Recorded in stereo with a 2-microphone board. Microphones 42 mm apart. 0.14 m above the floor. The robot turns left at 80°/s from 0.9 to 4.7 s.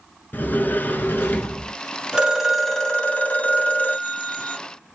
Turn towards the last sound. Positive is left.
turn(degrees=5)